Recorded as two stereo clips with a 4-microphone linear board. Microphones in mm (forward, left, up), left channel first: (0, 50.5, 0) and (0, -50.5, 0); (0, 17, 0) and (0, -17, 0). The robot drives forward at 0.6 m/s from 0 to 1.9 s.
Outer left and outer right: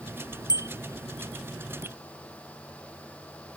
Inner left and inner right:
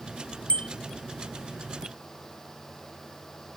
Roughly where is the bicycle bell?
Left.